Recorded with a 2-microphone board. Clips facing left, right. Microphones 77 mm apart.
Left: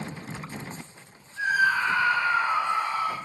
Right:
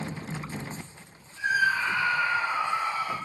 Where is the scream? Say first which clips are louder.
Left 2 dB; 60° left (ahead or behind), 2.5 m.